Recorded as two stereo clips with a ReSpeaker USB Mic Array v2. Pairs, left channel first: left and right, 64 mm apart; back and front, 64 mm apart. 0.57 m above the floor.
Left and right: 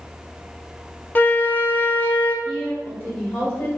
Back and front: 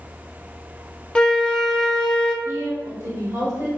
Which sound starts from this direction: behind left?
A flute, at 1.1 s.